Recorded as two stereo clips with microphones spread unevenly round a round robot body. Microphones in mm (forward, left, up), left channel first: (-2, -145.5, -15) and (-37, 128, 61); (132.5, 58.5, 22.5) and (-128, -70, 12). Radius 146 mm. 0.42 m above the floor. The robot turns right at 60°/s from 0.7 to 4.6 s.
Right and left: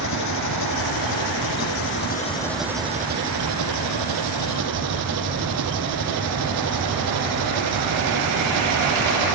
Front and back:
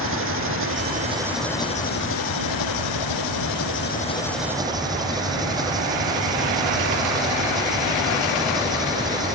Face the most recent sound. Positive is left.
turn(degrees=130)